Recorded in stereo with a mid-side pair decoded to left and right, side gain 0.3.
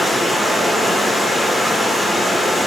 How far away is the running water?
About 1.6 m.